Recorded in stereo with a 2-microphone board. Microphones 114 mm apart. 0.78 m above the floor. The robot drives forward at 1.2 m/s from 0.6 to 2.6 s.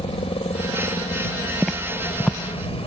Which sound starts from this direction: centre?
Footsteps, at 1.6 s.